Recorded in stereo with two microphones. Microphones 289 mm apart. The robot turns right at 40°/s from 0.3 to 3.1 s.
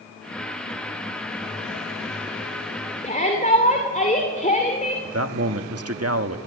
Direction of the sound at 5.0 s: 55° right (ahead or behind).